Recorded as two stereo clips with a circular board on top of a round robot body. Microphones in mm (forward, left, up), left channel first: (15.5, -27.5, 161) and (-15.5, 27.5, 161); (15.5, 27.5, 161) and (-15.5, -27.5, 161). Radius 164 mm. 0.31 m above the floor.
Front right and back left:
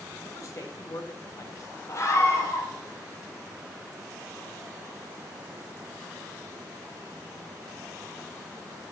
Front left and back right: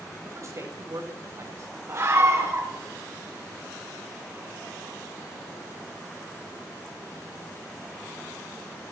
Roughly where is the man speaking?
Right.